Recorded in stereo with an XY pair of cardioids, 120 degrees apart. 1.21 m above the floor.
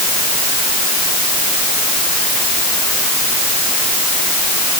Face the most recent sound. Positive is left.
No sound to turn to.